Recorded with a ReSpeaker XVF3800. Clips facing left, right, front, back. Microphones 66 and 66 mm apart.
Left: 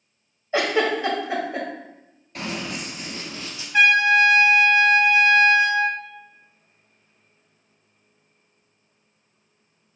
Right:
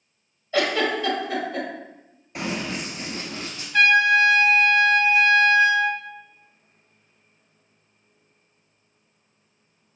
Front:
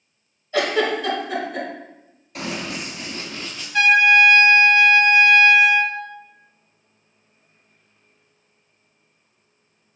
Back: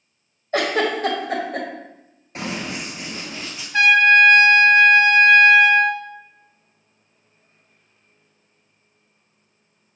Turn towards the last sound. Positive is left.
turn(degrees=155)